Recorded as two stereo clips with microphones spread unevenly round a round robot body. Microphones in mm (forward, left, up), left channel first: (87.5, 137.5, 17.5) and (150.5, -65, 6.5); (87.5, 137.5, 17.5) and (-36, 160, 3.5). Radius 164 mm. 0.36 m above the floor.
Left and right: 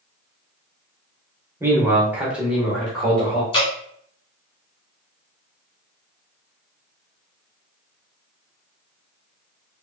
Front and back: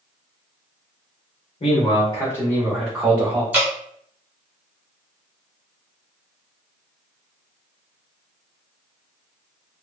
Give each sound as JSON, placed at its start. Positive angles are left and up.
{"t": 1.6, "sound": "a man speaking", "azimuth_deg": -5, "distance_m": 1.1}
{"t": 3.5, "sound": "dripping", "azimuth_deg": 135, "distance_m": 1.1}